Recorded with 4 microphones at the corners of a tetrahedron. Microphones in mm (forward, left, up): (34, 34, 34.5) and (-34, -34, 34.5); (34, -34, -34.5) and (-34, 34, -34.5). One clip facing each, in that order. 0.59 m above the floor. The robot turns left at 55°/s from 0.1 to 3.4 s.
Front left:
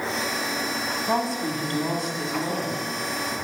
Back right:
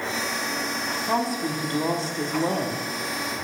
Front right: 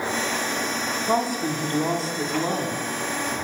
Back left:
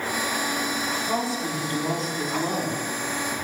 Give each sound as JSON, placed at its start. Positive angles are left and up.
{"t": 1.1, "sound": "a woman speaking", "azimuth_deg": -35, "distance_m": 0.9}